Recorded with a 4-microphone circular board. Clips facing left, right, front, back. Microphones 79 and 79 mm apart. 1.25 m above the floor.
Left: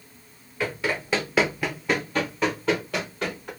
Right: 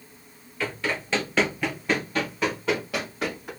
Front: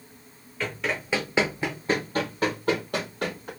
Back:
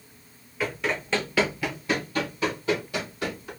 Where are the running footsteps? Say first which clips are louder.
Left 2 dB, back 1 dB; 120° left, 1.3 m; by 3.5 s 5° right, 3 m.